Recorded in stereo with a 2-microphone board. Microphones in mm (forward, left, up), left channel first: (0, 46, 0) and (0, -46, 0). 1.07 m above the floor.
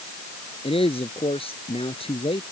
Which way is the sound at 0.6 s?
90° left.